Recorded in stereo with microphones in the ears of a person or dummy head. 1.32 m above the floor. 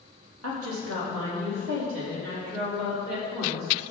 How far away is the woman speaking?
About 2.5 m.